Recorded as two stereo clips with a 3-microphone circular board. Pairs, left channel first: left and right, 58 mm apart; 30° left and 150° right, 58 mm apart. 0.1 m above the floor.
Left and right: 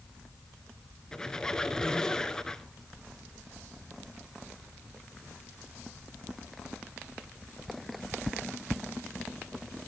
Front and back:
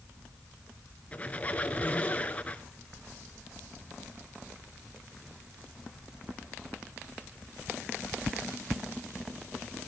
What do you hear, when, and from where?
1.1 s a squeak: 30° left, 1.1 m